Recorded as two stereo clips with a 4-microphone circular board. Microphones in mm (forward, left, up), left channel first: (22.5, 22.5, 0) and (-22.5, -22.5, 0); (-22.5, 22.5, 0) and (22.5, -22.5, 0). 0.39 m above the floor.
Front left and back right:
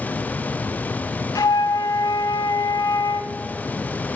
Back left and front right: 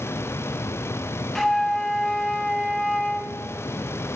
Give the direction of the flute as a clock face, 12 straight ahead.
10 o'clock.